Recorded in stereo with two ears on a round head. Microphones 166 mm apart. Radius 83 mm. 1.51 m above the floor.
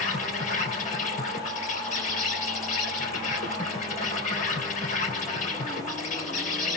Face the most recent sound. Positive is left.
turn(degrees=40)  # may be behind; listen again after turning